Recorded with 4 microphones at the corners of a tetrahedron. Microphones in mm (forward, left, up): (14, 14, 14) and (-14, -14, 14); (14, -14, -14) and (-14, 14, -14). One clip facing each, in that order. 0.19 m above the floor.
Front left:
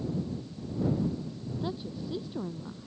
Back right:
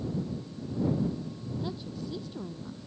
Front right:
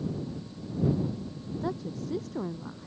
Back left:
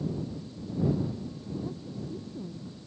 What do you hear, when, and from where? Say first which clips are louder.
1.6 s a woman speaking: front left 3 dB, front right 4 dB; 30° right